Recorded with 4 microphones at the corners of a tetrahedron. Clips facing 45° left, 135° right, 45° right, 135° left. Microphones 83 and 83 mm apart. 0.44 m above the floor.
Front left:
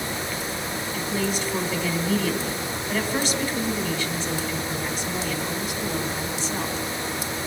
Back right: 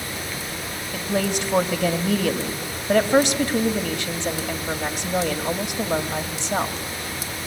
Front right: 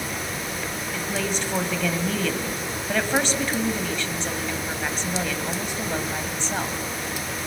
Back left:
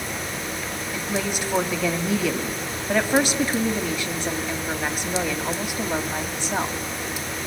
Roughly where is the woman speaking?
Behind right.